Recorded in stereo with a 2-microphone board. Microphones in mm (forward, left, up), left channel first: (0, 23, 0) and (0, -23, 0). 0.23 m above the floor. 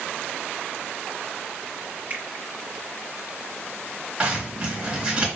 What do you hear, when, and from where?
2.1 s a finger snap: 40° right (ahead or behind), 2.5 m
4.2 s a zipper: 25° right (ahead or behind), 3 m